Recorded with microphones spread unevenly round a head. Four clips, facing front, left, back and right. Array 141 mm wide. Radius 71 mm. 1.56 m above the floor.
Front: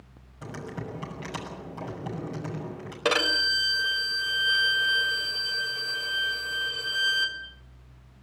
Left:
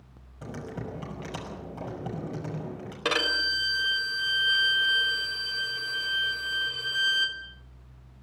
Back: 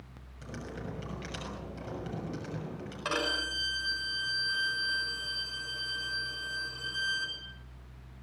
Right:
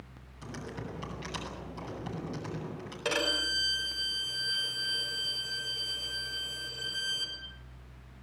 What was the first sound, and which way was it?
Typing on a keyboard, 70° left.